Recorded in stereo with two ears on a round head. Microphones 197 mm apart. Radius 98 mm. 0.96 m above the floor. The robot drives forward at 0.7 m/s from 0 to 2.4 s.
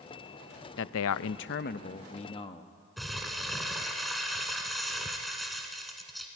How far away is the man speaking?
About 0.5 m.